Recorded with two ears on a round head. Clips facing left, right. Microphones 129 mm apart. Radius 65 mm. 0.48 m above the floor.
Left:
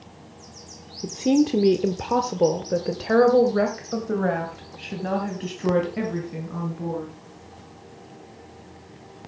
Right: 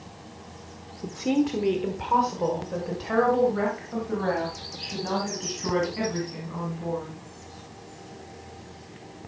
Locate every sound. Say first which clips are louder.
1.0 s a woman speaking: left 5 dB; 20° left (ahead or behind), 0.9 m; by 7.1 s 55° left (ahead or behind), 4 m